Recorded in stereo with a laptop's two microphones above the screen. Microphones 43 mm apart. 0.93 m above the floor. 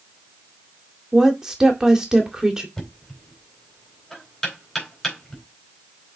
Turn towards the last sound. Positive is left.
turn(degrees=10)  # may be behind; listen again after turning